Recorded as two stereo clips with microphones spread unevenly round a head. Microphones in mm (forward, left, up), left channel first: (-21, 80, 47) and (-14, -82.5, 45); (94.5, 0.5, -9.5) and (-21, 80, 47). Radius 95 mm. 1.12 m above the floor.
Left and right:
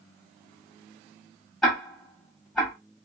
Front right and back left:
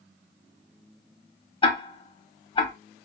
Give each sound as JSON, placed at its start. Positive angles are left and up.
{"t": 1.6, "sound": "ticking", "azimuth_deg": 5, "distance_m": 2.5}